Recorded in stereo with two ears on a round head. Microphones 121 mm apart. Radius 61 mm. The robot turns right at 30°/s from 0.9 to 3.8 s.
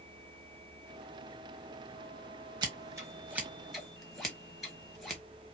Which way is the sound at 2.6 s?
35° right (ahead or behind).